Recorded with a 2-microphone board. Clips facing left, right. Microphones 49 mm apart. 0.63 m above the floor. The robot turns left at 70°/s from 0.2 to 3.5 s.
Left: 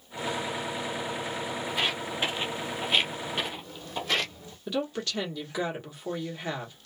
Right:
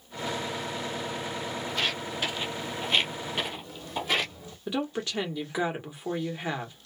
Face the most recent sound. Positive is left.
turn(degrees=-20)  # may be behind; listen again after turning